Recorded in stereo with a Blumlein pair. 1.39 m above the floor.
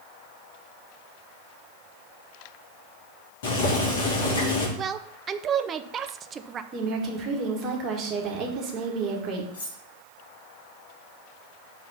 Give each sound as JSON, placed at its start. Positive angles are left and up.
{"t": 3.4, "sound": "boiling", "azimuth_deg": 50, "distance_m": 2.5}
{"t": 4.8, "sound": "a woman speaking", "azimuth_deg": -20, "distance_m": 0.6}
{"t": 6.7, "sound": "a woman speaking", "azimuth_deg": -30, "distance_m": 1.9}
{"t": 9.5, "sound": "cutlery clinking", "azimuth_deg": 60, "distance_m": 2.5}